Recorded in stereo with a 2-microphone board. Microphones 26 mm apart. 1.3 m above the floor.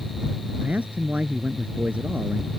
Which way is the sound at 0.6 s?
70° right (ahead or behind).